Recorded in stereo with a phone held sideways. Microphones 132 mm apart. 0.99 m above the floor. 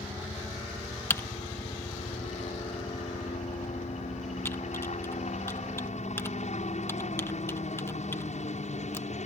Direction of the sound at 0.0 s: 60° left (ahead or behind).